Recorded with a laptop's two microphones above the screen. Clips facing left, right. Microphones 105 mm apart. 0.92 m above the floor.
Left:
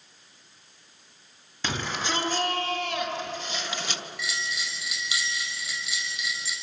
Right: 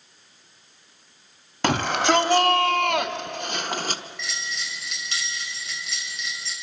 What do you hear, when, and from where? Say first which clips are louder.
1.6 s a shout: right 10 dB; 65° right (ahead or behind), 2.5 m; by 4.0 s 40° right (ahead or behind), 1.1 m
4.2 s a bell: left 1 dB; 5° left (ahead or behind), 6 m